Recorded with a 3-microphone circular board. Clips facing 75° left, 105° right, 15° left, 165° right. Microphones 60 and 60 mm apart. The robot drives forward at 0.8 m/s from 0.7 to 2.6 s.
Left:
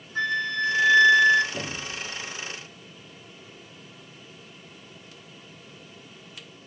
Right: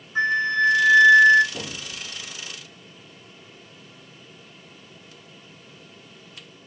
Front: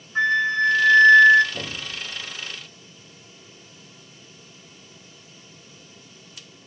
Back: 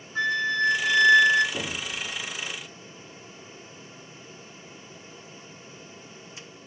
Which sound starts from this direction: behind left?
An explosion, at 1.5 s.